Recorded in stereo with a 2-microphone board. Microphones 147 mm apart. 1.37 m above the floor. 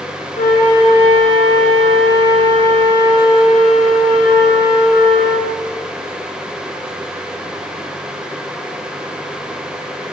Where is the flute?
75° left (ahead or behind), 0.6 m.